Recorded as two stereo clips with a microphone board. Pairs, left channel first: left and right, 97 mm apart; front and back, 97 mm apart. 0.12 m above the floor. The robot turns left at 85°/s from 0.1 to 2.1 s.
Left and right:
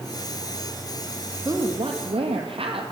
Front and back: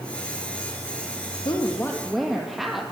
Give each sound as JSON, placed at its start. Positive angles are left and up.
{"t": 1.4, "sound": "a woman speaking", "azimuth_deg": -35, "distance_m": 3.5}